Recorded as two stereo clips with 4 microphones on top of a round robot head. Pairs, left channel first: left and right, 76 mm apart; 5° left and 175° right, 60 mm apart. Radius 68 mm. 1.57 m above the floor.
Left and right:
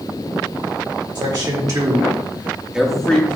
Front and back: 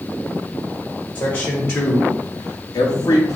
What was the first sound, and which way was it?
A man speaking, 60° right.